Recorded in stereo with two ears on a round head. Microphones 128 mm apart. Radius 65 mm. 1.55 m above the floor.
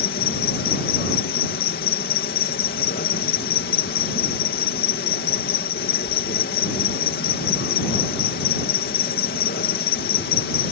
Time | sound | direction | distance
0.0 | an insect | 75° left (ahead or behind) | ?